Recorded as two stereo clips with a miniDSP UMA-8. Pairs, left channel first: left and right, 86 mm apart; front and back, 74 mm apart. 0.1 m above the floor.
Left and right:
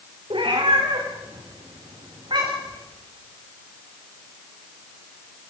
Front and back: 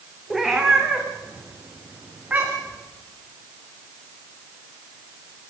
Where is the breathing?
No breathing in this recording.